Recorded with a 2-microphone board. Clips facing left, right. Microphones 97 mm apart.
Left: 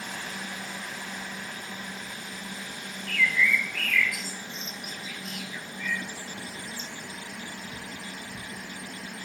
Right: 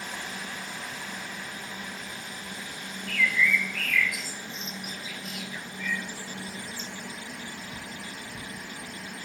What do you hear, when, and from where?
3.1 s a bird: 5° right (ahead or behind), 0.5 m